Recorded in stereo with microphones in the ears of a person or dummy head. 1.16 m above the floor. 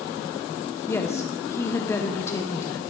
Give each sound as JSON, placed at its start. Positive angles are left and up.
{"t": 0.9, "sound": "a woman speaking", "side_deg": 20, "distance_m": 0.8}